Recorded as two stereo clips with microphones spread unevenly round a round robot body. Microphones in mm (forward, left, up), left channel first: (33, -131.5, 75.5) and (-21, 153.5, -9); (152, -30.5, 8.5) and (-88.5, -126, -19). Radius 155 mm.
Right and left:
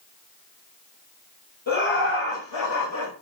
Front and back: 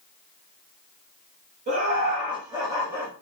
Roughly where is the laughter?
Behind right.